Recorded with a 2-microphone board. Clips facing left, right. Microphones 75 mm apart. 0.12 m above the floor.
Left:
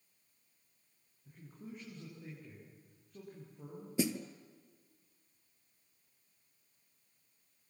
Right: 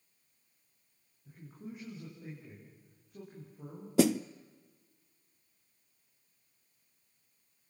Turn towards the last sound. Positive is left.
turn(degrees=-70)  # may be behind; listen again after turning